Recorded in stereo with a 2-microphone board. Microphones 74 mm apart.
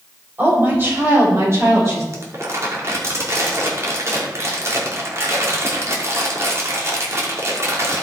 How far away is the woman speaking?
About 5.5 m.